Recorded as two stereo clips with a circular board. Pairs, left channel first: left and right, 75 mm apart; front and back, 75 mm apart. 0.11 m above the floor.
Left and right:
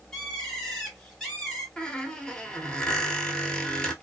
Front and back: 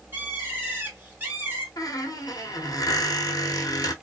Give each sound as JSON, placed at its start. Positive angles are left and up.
{"t": 0.1, "sound": "a bird", "azimuth_deg": 165, "distance_m": 1.3}
{"t": 1.8, "sound": "a squeak", "azimuth_deg": 10, "distance_m": 0.7}